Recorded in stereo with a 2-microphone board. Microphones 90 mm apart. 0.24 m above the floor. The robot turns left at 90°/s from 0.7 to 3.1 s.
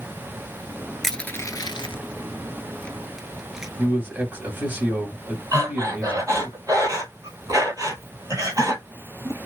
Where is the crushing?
Centre (ahead or behind), 0.6 m; by 3.7 s 5° right (ahead or behind), 0.6 m.